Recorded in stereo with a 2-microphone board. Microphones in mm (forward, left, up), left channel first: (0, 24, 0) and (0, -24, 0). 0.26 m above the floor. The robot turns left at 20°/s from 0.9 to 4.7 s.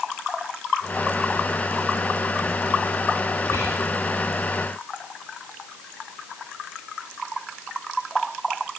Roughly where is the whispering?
Left.